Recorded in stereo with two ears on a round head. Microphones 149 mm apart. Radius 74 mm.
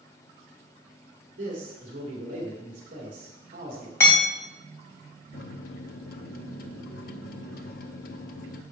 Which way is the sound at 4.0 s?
15° left (ahead or behind).